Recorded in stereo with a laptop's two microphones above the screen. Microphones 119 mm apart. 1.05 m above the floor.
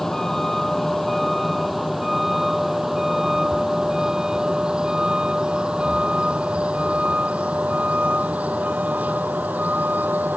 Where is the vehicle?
5° left (ahead or behind); by 10.4 s 15° right (ahead or behind).